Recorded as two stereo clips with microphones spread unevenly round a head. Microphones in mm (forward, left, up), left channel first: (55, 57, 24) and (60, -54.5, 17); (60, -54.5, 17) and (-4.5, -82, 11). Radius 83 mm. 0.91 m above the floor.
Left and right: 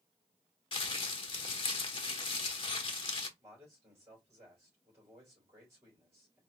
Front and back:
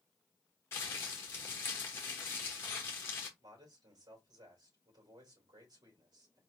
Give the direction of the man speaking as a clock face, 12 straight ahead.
5 o'clock.